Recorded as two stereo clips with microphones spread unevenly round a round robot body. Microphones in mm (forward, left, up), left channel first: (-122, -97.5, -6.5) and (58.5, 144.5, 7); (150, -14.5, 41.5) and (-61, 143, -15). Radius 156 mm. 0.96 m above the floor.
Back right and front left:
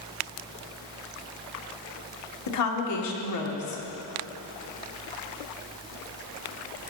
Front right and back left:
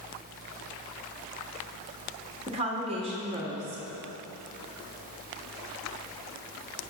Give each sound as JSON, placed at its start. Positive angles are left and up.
{"t": 2.5, "sound": "a woman speaking", "azimuth_deg": -150, "distance_m": 1.8}